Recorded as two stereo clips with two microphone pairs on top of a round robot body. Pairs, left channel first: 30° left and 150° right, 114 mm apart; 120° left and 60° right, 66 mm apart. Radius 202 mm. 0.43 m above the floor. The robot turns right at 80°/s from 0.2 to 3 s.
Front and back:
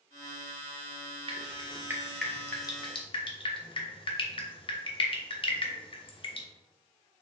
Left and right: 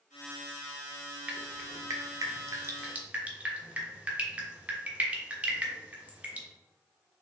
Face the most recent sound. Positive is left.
turn(degrees=5)